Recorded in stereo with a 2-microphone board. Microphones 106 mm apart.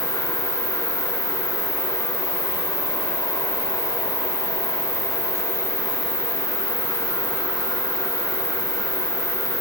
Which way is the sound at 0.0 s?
15° right (ahead or behind).